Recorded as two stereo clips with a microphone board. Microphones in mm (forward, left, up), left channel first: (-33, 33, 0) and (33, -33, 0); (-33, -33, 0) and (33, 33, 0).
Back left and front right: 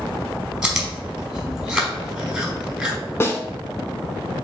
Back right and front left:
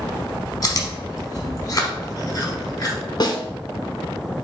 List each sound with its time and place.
0.6 s chewing: 130° right, 0.9 m
3.2 s a snare drum: 165° right, 0.6 m